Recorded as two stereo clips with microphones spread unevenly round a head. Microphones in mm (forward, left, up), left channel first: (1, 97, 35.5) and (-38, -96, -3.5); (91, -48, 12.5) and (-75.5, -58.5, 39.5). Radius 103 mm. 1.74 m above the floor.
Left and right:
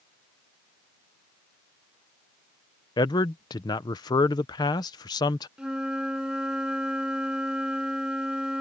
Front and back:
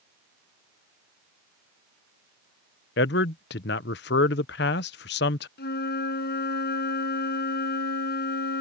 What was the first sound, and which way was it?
A man speaking, 20° left.